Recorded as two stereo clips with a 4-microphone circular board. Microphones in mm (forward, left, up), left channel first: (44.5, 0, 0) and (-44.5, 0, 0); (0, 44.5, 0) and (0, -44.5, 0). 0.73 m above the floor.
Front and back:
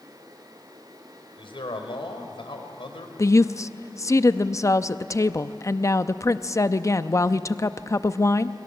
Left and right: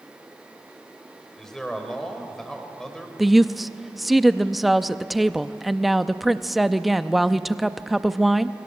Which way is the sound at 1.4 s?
5° left.